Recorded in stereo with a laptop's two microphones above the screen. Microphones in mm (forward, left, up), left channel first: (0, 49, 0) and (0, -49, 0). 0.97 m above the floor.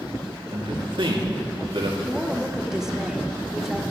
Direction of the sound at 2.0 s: 5° right (ahead or behind).